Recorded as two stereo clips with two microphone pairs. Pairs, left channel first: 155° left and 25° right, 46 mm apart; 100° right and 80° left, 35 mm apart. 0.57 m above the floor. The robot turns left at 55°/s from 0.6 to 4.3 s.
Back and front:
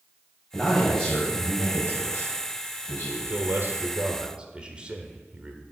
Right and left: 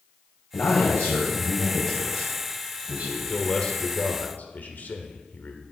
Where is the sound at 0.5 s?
105° right, 4 m; by 3.2 s 115° left, 4 m.